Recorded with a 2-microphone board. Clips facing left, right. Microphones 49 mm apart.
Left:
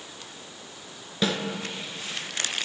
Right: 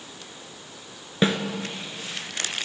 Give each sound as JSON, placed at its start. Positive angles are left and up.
{"t": 1.2, "sound": "a snare drum", "side_deg": -30, "distance_m": 0.7}